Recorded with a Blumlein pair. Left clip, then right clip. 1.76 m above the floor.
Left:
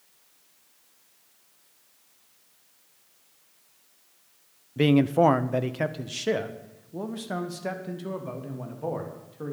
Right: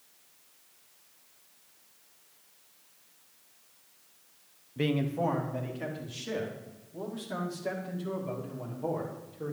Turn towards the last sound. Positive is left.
turn(degrees=65)